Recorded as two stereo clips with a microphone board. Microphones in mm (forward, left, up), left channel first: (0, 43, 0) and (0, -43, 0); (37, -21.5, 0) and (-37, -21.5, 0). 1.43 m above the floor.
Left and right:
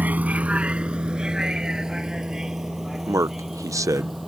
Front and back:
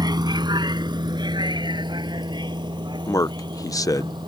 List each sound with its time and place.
0.0 s a vehicle: 160° right; by 4.3 s straight behind
3.1 s a man speaking: 40° right